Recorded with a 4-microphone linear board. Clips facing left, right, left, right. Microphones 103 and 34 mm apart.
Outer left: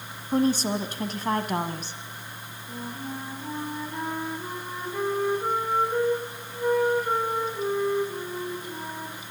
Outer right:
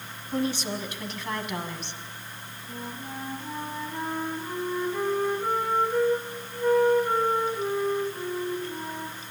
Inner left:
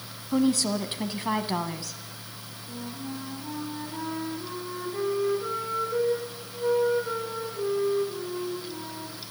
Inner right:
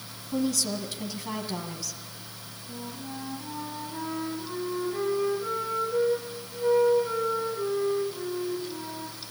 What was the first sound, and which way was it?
A woman speaking, 40° left (ahead or behind).